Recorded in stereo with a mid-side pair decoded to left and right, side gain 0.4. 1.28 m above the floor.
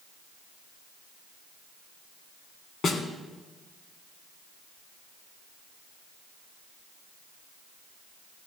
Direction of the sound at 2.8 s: 60° left.